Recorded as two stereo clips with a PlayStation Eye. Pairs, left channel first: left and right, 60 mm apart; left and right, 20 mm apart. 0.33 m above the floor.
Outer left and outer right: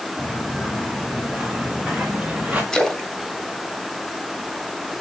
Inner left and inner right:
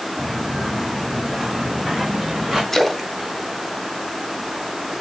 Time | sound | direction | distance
0.2 | footsteps | 10° left (ahead or behind) | 4.5 m
2.7 | a splash | 10° left (ahead or behind) | 1.3 m